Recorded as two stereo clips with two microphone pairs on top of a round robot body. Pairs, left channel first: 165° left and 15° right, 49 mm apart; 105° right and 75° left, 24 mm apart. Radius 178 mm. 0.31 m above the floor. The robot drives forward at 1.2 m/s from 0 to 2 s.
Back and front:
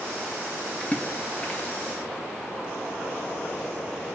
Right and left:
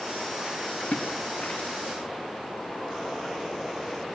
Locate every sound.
0.8 s a splash: 130° right, 8 m; by 2.0 s 140° right, 9 m